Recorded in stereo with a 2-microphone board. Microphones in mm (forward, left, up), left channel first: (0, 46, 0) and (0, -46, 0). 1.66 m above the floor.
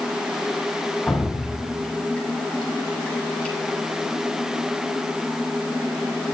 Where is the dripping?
15° left (ahead or behind), 6 m.